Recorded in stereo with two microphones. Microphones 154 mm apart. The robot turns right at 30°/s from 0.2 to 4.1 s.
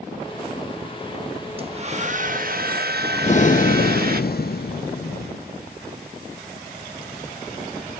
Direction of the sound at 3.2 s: 45° left (ahead or behind).